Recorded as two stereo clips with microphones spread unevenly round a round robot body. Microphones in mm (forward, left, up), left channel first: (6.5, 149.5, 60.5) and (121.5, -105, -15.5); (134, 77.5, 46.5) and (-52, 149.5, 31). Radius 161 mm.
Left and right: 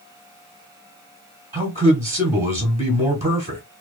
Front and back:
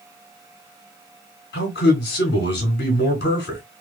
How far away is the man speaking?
About 1.2 m.